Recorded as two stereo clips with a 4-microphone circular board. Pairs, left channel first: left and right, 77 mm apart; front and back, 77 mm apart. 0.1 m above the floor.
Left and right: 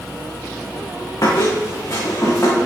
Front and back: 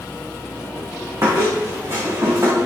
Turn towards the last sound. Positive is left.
turn(degrees=135)